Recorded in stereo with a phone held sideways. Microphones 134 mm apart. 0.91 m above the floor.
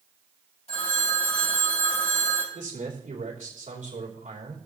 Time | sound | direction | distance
0.7 | a phone ringing | 50° left (ahead or behind) | 3.5 m
2.5 | a man speaking | 75° right (ahead or behind) | 2.5 m